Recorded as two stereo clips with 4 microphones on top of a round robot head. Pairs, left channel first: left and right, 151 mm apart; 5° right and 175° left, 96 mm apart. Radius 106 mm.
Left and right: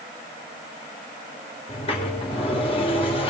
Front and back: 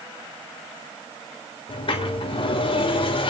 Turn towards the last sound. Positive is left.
turn(degrees=30)